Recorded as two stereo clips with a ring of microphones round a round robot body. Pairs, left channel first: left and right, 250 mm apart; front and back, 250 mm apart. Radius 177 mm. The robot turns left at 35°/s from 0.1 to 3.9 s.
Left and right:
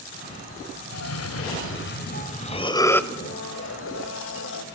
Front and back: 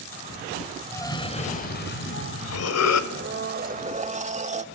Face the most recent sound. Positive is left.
turn(degrees=125)